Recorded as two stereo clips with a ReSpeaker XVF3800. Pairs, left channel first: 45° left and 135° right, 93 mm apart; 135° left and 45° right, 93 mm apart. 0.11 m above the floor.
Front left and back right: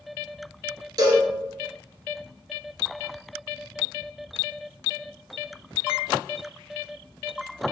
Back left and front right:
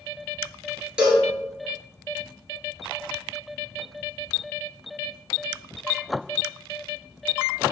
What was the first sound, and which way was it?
A cowbell, 120° right.